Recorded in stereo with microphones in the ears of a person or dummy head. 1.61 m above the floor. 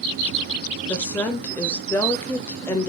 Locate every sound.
0.9 s a woman speaking: 15° left (ahead or behind), 0.6 m